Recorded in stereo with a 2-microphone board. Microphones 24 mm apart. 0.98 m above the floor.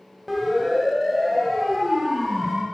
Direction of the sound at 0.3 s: 5° right (ahead or behind).